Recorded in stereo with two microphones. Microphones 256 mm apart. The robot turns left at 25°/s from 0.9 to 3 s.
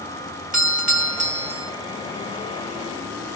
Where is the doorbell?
30° right (ahead or behind), 2 m; by 1.7 s 20° right (ahead or behind), 2 m.